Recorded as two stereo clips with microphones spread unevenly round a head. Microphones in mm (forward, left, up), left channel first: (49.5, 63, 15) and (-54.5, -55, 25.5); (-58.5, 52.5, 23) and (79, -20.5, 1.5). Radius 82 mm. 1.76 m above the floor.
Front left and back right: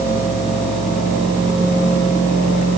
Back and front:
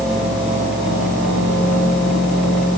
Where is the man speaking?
I don't hear a man speaking.